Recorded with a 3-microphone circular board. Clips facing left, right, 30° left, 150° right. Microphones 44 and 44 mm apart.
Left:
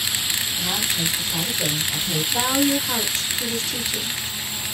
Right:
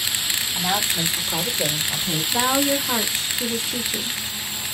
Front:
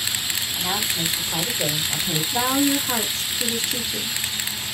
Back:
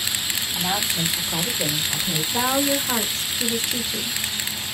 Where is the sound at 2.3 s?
75° right, 0.8 m.